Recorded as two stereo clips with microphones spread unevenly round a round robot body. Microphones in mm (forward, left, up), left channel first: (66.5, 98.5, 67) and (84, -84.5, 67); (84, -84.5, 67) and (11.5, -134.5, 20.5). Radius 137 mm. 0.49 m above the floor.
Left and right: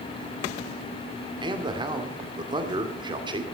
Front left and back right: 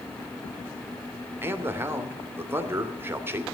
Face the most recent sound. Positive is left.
turn(degrees=-145)